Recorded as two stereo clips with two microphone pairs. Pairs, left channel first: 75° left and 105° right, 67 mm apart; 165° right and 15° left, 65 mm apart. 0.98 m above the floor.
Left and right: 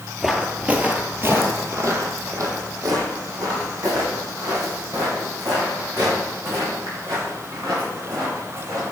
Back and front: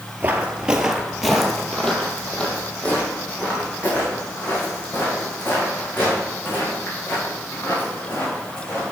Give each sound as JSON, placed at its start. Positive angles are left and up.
{"t": 0.2, "sound": "footsteps", "azimuth_deg": -20, "distance_m": 1.1}